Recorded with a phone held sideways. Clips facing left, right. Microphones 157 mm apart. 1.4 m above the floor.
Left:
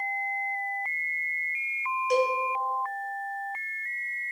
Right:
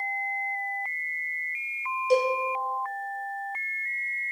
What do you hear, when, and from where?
2.1 s a cowbell: 30° right (ahead or behind), 0.8 m